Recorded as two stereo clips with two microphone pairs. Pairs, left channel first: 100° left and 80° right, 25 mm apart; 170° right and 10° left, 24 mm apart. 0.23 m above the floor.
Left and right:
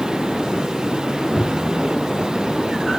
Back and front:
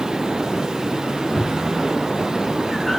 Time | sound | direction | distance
1.4 | a cupboard door | 145° right | 1.4 m